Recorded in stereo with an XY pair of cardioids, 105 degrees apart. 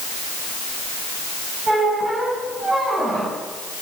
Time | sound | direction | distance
1.7 | a squeak | 35° right | 9.5 m